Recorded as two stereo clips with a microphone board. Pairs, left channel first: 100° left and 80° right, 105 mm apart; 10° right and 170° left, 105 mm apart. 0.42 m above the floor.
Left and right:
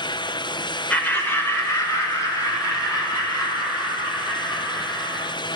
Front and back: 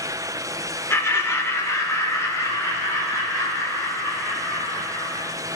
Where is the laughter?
35° left, 1.1 m; by 5.3 s 50° left, 4.5 m.